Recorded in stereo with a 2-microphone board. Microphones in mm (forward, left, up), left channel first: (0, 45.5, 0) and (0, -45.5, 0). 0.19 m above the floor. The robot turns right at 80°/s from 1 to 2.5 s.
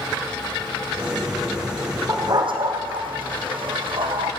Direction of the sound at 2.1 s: 30° right (ahead or behind).